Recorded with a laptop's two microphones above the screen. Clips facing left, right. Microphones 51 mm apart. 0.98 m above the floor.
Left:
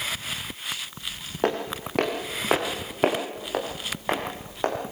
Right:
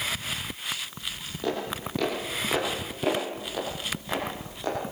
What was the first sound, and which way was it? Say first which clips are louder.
Footsteps: left 4 dB; 55° left (ahead or behind).